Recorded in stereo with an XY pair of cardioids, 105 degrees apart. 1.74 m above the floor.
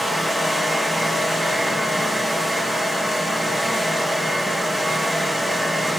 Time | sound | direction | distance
0.0 | a fan | 5° left | 2 m